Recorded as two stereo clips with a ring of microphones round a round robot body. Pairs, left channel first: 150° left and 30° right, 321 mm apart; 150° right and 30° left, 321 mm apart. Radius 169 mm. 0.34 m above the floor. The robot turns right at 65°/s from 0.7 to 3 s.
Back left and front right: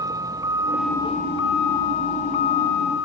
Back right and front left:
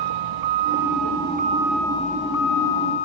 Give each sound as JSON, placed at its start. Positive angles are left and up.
{"t": 0.0, "sound": "a vehicle", "azimuth_deg": 50}